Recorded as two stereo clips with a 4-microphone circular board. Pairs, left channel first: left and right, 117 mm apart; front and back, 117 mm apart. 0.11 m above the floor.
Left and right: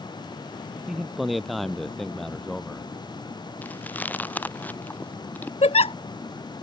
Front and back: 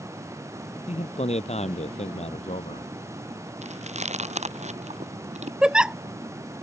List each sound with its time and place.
0.9 s a man speaking: 5° right; by 2.9 s 5° left
3.6 s chewing: 165° left
5.6 s a giggle: 100° left